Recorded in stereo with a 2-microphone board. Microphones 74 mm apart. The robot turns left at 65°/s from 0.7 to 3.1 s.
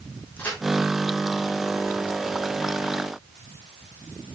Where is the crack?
25° left (ahead or behind), 5.5 m.